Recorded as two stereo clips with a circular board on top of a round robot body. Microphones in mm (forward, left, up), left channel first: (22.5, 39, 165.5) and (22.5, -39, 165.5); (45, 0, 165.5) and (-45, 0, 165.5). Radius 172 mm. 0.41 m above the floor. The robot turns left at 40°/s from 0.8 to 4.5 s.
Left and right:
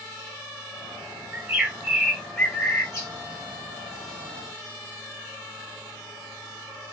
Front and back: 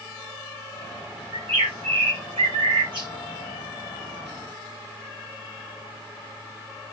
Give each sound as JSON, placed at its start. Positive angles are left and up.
{"t": 1.3, "sound": "a bird", "azimuth_deg": -150, "distance_m": 1.6}